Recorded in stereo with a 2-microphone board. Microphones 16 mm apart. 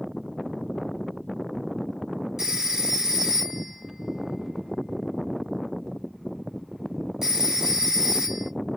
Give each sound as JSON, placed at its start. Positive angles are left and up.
{"t": 2.4, "sound": "a phone ringing", "side_deg": -40, "distance_m": 1.3}